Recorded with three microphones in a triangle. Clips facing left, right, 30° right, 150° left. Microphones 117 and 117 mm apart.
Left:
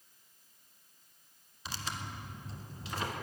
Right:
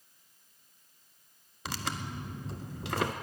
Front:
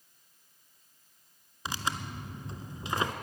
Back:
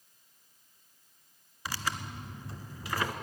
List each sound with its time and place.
1.6 s tearing paper: 100° right, 0.7 m